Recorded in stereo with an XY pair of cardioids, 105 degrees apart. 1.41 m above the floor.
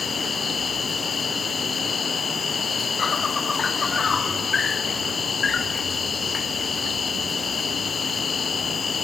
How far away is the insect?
About 0.7 m.